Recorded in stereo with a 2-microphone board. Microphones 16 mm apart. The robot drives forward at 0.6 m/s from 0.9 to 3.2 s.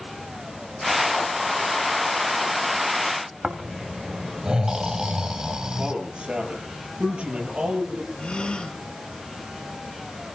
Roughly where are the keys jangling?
No keys jangling in this recording.